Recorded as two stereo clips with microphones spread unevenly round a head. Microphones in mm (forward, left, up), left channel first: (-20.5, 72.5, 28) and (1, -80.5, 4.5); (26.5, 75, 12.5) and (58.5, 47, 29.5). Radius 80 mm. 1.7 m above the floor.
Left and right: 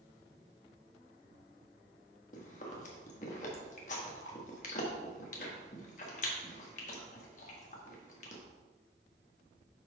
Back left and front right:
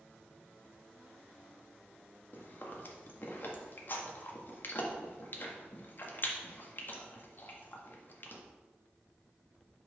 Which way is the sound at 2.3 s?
90° left.